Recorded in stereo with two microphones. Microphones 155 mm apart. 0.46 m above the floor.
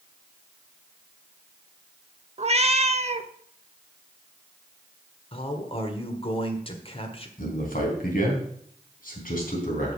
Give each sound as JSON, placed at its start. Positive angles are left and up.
{"t": 2.4, "sound": "a cat meowing", "side_deg": -45, "distance_m": 0.6}
{"t": 5.3, "sound": "a man speaking", "side_deg": 35, "distance_m": 1.5}
{"t": 7.4, "sound": "a man speaking", "side_deg": 65, "distance_m": 3.5}